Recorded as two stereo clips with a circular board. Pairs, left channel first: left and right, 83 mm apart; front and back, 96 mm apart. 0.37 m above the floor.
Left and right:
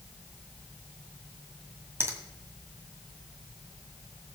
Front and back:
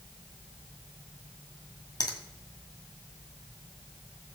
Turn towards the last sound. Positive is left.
turn(degrees=-35)